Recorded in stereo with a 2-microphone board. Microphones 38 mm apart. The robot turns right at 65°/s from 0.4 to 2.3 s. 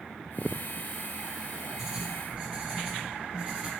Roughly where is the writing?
Centre.